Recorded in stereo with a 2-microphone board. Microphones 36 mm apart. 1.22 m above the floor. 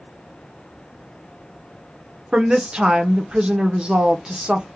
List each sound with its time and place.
2.3 s a woman speaking: 25° right (ahead or behind), 0.6 m